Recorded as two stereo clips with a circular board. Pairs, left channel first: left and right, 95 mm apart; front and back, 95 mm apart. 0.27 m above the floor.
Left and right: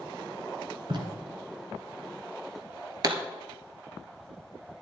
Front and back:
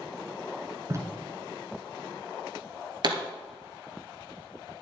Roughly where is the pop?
Behind right.